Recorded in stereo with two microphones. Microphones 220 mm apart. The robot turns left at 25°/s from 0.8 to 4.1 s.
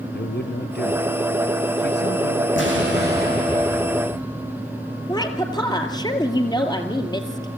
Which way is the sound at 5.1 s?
20° left (ahead or behind).